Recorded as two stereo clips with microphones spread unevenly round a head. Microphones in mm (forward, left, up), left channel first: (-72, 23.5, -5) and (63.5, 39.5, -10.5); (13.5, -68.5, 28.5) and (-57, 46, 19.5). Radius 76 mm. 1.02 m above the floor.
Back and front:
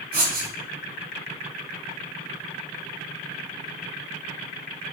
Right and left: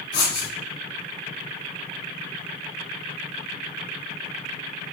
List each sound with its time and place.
0.1 s writing: 5° left, 2 m